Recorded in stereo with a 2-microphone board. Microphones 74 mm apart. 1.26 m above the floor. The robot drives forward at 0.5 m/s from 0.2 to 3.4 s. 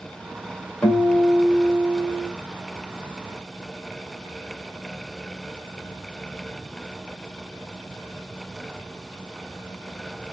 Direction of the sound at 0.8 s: 30° left (ahead or behind).